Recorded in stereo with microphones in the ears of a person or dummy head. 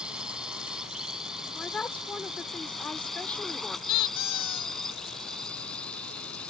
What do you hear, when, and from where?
0.0 s a drone: 5° right (ahead or behind); by 6.5 s 5° left (ahead or behind)
1.5 s a woman speaking: 5° left (ahead or behind)
3.9 s a squeak: 25° left (ahead or behind)